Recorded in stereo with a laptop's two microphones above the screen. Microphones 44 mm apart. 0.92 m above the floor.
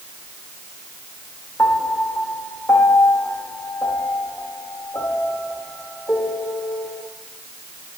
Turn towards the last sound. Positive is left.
turn(degrees=75)  # may be behind; listen again after turning